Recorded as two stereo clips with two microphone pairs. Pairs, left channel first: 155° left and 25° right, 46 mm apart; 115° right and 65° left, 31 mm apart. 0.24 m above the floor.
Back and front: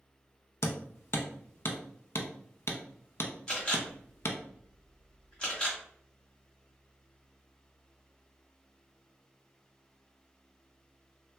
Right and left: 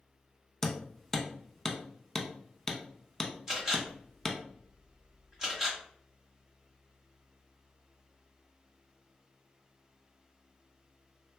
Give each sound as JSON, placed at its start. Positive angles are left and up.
{"t": 0.6, "sound": "hammering", "azimuth_deg": 160, "distance_m": 0.5}
{"t": 3.5, "sound": "a camera shutter", "azimuth_deg": 110, "distance_m": 1.5}